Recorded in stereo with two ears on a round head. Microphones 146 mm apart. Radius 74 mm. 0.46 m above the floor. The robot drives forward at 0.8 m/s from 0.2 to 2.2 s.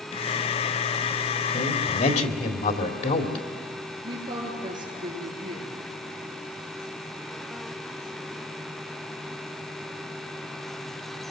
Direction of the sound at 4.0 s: 30° right (ahead or behind).